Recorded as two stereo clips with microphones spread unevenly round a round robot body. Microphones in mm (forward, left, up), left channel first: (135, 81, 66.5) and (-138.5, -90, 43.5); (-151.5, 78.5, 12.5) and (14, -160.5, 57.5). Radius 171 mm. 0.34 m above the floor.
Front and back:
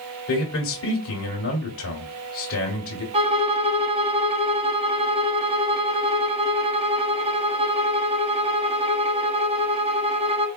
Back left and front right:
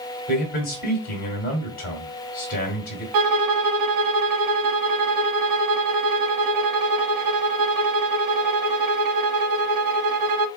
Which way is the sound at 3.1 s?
75° right.